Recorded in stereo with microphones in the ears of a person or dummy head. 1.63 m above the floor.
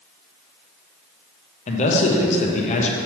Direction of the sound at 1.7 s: 40° left (ahead or behind).